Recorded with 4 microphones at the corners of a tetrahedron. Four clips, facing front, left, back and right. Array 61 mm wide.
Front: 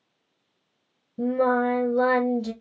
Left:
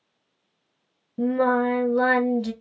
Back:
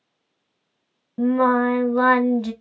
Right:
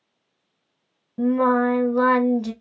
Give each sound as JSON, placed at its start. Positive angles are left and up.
{"t": 1.2, "sound": "singing", "azimuth_deg": -160, "distance_m": 1.1}